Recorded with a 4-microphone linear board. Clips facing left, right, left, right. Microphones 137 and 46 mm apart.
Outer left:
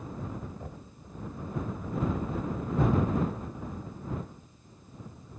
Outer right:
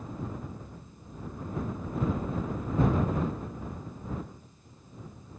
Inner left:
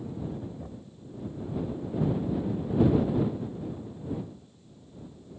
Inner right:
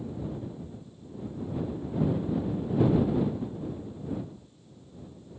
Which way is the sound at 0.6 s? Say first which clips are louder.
Outer left 3 dB, even; 80° left.